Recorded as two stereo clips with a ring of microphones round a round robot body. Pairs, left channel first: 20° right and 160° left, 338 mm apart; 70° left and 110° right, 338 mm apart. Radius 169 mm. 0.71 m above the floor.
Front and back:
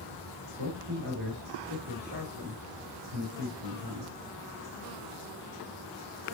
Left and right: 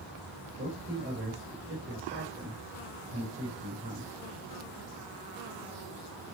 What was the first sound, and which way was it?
A man speaking, 175° right.